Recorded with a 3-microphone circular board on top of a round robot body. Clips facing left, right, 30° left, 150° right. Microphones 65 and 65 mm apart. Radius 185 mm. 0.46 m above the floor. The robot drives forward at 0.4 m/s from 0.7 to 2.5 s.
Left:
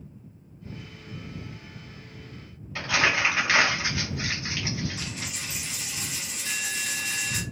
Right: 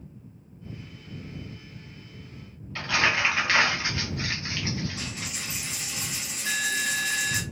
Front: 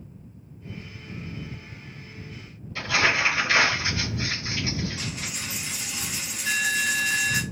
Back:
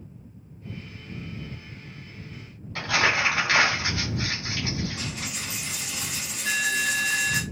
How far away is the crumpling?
About 0.7 m.